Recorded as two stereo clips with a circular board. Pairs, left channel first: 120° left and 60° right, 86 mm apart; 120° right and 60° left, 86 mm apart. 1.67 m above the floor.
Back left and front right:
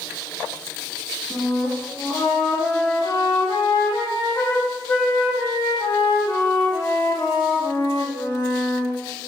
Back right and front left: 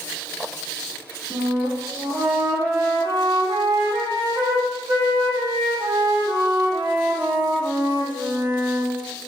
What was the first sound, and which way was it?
A flute, 75° left.